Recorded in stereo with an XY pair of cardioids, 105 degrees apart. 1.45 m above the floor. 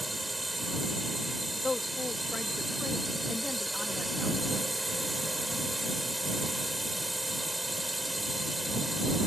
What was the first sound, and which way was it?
A drone, 10° right.